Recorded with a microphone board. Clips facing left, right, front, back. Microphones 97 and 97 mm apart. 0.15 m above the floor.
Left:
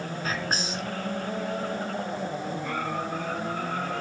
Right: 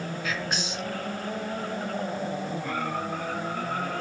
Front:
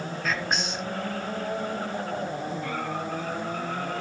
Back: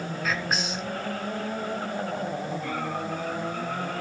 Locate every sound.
0.2 s whispering: 95° left, 1.6 m